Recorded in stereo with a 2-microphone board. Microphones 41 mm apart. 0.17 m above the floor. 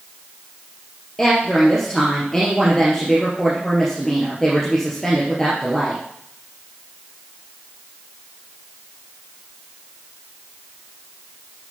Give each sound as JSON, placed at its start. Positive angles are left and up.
{"t": 1.2, "sound": "a woman speaking", "side_deg": 10, "distance_m": 2.5}